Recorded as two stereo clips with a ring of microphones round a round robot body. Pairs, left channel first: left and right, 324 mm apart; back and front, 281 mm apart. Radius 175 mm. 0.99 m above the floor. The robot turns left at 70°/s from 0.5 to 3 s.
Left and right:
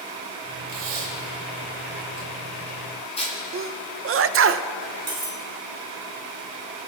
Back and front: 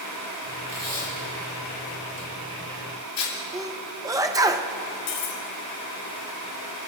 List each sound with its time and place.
0.7 s tape being pulled: 35° right, 6 m; by 3.3 s 160° left, 6 m
3.5 s a sneeze: 70° right, 0.6 m
5.1 s cutlery clinking: 165° right, 3 m